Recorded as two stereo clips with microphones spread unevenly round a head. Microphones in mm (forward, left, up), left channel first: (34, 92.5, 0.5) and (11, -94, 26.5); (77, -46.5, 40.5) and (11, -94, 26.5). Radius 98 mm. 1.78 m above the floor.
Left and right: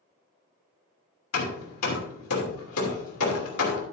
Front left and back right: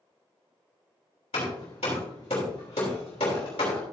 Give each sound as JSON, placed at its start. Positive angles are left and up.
{"t": 1.3, "sound": "hammering", "azimuth_deg": 85, "distance_m": 3.0}